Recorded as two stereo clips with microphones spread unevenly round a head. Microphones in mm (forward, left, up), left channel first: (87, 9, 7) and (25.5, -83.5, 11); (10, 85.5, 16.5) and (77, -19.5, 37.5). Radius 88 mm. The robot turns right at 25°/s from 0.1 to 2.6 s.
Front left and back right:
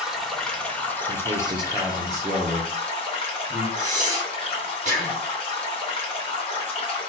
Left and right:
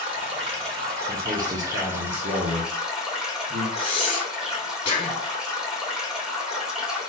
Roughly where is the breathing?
Behind.